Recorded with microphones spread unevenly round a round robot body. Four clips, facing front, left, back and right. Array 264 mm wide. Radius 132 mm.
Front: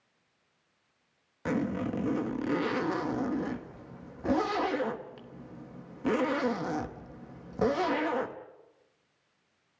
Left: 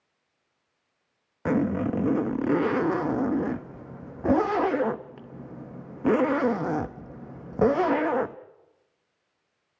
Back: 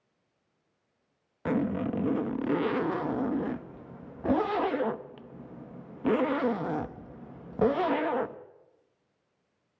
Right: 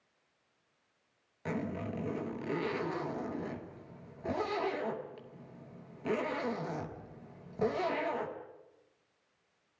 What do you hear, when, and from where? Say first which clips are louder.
1.4 s a zipper: left 13 dB, back 2 dB; 95° left, 0.9 m